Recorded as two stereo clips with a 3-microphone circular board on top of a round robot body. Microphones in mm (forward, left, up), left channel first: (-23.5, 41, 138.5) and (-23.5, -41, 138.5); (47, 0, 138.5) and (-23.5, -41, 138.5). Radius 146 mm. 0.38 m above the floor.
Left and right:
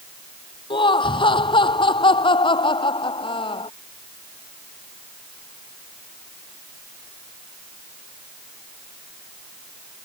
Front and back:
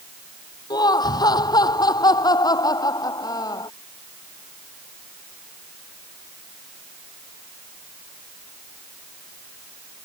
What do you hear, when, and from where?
0.7 s laughter: 70° left; by 3.7 s 75° left